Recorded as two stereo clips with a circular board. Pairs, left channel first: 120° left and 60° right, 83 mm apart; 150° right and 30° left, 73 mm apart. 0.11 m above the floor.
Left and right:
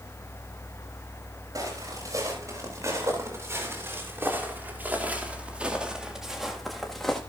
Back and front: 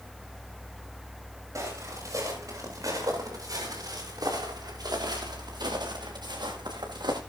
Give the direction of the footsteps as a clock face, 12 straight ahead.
12 o'clock.